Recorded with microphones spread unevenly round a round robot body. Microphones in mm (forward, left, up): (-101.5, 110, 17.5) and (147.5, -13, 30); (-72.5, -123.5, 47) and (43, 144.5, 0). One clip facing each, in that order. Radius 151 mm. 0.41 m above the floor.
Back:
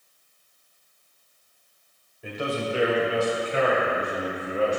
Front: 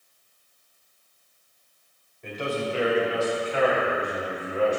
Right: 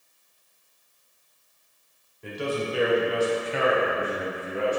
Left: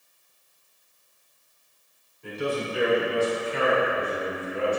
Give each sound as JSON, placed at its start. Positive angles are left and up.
{"t": 2.2, "sound": "a man speaking", "azimuth_deg": -125, "distance_m": 1.8}